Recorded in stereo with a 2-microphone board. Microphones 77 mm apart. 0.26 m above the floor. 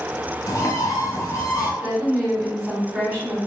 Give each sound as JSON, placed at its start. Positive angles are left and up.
{"t": 0.5, "sound": "a bird", "side_deg": 50, "distance_m": 0.6}
{"t": 1.8, "sound": "a woman speaking", "side_deg": -20, "distance_m": 1.9}